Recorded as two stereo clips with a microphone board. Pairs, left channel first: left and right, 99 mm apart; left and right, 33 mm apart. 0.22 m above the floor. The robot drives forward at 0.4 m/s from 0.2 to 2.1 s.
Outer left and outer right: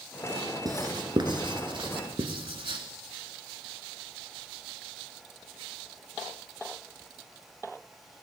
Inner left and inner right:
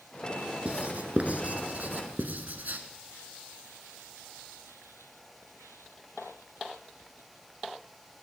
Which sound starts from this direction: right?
Writing, at 0.7 s.